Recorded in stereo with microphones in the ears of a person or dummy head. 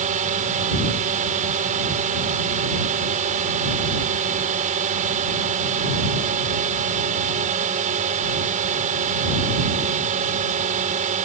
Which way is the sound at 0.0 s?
35° right (ahead or behind).